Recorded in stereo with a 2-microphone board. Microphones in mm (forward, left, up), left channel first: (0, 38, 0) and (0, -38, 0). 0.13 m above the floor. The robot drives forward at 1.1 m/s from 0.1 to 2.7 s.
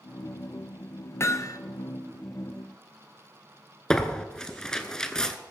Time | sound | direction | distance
1.2 | hammering | 35° left (ahead or behind) | 0.8 m
3.9 | tearing paper | 10° left (ahead or behind) | 0.9 m